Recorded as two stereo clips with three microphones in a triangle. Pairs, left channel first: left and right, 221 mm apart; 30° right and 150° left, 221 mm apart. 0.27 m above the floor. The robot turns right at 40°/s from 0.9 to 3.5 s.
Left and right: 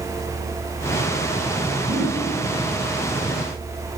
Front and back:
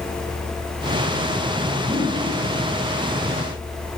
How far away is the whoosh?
About 3 m.